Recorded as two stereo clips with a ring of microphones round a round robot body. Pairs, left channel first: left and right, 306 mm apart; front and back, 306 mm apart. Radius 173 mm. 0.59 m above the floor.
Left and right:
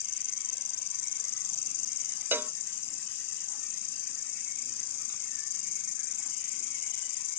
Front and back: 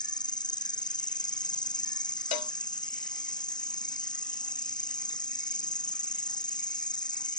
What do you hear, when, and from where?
0.0 s an insect: 75° left
2.3 s a cowbell: 5° right